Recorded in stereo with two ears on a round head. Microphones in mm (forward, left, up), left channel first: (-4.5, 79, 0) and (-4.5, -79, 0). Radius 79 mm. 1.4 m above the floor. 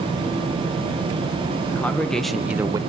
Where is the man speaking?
10° left (ahead or behind), 1.6 m; by 2.8 s 25° right (ahead or behind), 0.6 m.